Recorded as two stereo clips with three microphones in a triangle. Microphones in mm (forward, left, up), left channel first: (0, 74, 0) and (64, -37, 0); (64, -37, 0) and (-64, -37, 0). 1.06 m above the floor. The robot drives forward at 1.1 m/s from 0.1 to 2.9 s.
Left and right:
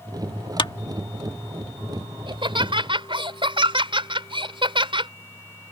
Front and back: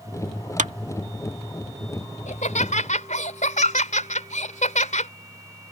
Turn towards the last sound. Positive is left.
turn(degrees=-10)